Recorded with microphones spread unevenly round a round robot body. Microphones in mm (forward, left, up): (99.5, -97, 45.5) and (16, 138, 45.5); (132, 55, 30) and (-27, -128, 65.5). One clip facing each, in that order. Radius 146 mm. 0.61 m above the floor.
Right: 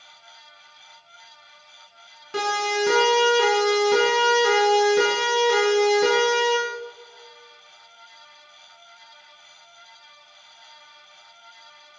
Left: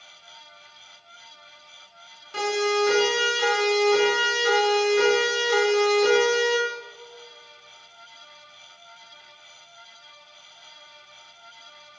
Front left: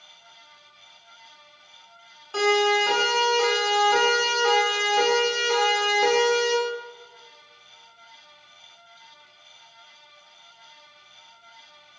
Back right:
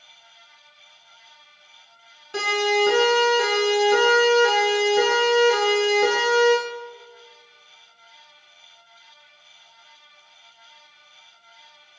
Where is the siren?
55° right, 9 m; by 6.5 s 50° right, 12 m.